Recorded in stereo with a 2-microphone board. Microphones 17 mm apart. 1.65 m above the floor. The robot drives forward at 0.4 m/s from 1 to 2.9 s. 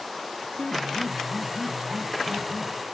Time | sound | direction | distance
0.6 | a piano | 85° left | 1.2 m